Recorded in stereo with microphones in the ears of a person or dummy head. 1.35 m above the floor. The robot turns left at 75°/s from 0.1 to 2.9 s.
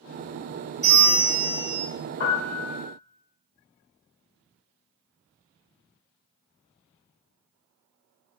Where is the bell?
160° left, 1.5 m; by 1.9 s 85° left, 1.5 m.